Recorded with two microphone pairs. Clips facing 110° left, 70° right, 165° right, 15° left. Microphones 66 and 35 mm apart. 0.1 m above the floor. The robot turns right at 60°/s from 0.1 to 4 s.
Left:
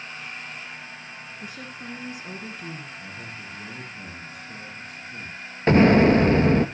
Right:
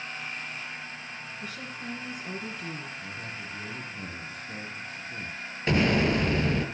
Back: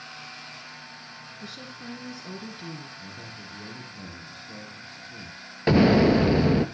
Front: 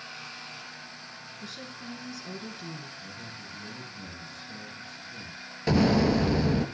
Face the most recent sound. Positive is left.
turn(degrees=150)